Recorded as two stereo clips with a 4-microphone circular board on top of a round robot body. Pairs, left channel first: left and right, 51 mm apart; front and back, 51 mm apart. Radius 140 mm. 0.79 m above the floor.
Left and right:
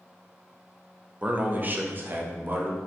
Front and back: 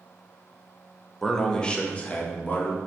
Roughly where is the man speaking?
Right.